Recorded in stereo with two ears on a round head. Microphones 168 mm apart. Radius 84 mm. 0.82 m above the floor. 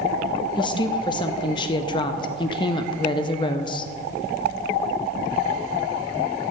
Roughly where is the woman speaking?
Left.